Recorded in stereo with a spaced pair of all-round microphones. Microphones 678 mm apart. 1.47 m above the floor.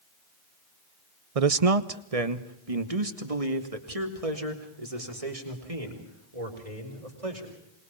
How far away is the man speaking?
About 0.8 m.